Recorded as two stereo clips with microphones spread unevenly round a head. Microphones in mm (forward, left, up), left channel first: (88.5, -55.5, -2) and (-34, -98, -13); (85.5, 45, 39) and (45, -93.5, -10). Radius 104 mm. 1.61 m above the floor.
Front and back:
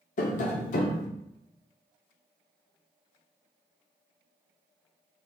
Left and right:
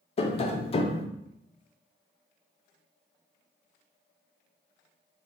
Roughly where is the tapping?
Ahead left.